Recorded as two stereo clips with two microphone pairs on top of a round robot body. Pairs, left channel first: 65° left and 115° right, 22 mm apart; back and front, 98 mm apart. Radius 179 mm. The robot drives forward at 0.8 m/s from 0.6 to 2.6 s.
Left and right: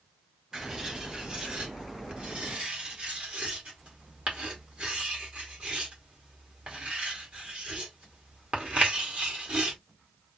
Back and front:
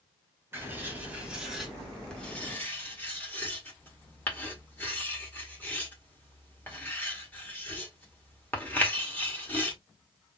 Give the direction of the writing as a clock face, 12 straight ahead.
2 o'clock.